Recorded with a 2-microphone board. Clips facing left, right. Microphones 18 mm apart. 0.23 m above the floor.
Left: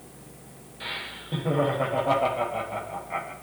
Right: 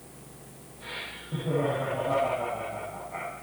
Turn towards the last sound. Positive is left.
turn(degrees=55)  # may be behind; listen again after turning